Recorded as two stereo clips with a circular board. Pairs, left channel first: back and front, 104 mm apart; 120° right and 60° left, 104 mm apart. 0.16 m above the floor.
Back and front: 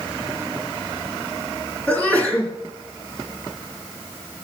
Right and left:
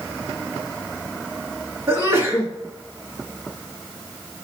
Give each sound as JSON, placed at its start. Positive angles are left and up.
{"t": 1.9, "sound": "a sneeze", "azimuth_deg": 110, "distance_m": 2.0}